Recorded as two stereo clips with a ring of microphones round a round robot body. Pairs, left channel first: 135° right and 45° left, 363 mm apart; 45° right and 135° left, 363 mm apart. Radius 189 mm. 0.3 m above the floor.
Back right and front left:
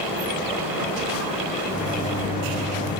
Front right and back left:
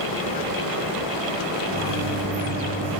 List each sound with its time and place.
1.7 s a microwave: 175° left, 1.1 m